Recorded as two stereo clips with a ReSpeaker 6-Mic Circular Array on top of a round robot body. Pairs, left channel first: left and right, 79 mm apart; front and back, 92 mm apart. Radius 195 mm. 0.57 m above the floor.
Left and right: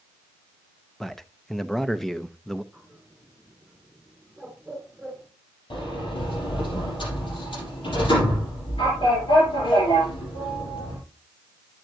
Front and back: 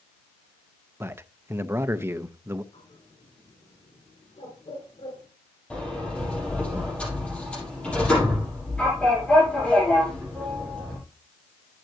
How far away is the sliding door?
About 5 m.